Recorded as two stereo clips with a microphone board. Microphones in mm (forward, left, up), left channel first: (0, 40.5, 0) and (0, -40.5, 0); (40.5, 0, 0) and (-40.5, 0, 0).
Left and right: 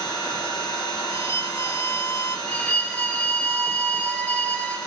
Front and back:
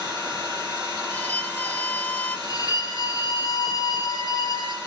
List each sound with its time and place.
0.0 s an engine running: 100° left, 8.5 m
1.1 s a violin: 60° left, 0.6 m
2.5 s a violin: 20° left, 2.5 m